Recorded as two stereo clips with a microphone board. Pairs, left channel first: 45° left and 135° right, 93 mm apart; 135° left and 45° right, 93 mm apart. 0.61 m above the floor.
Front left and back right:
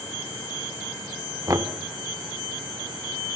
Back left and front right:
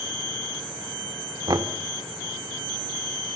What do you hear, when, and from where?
1.5 s knocking: 85° right, 1.0 m